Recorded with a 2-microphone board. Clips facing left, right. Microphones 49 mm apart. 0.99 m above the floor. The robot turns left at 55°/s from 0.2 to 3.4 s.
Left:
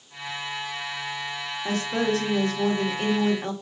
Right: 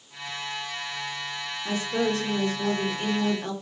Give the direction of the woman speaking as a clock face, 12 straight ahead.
8 o'clock.